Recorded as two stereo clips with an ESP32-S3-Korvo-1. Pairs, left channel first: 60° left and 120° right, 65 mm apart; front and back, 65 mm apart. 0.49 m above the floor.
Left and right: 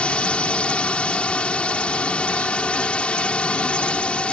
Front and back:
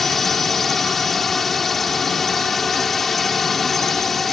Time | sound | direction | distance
0.0 | a drone | 80° left | ?